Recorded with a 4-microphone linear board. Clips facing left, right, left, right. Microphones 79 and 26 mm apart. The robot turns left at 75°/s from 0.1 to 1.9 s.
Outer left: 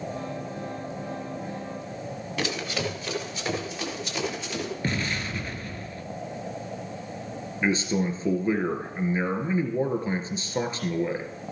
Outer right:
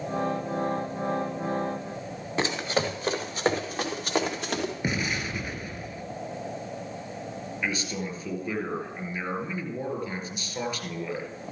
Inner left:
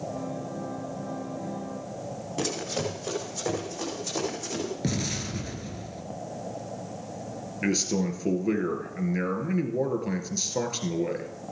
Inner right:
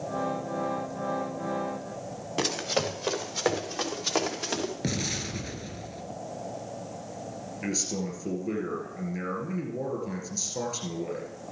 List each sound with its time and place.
2.4 s running footsteps: 30° right (ahead or behind), 3.5 m; by 4.7 s 60° right (ahead or behind), 5 m
4.8 s an explosion: 10° right (ahead or behind), 1.3 m
7.6 s a man speaking: 30° left (ahead or behind), 2 m